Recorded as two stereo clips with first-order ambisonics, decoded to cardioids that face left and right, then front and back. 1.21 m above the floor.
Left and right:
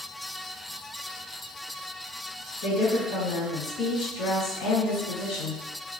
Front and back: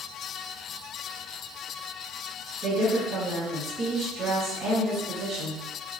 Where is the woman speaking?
115° left, 1.5 m.